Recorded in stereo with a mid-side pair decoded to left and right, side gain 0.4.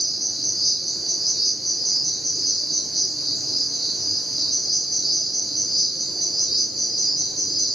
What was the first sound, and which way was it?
An insect, 5° left.